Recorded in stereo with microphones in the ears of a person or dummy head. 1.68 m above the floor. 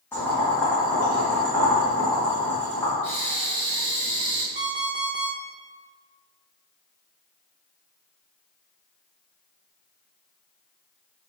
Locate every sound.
0.1 s boiling: 10° left (ahead or behind), 1.6 m
3.0 s breathing: 40° left (ahead or behind), 0.8 m
4.5 s an alarm clock: 25° right (ahead or behind), 0.8 m